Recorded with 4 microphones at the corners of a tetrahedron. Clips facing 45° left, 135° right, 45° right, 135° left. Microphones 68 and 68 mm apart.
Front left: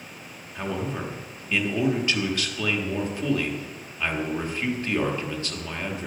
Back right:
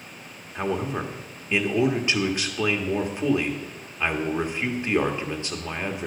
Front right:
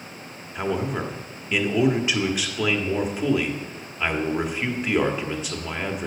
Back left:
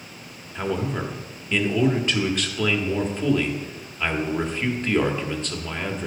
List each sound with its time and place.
0.6 s a man speaking: 110° right, 1.3 m